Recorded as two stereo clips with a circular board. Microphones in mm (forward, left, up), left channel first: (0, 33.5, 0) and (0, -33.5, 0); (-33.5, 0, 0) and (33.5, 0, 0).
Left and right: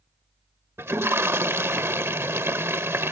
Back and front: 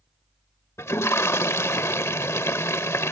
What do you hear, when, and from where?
0.8 s a toilet flushing: 135° right